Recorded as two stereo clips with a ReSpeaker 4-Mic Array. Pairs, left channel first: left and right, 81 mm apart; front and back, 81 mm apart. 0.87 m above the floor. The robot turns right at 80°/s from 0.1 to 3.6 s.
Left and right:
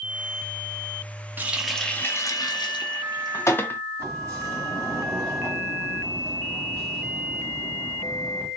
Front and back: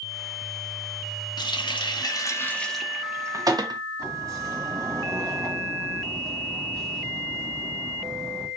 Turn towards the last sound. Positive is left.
turn(degrees=-135)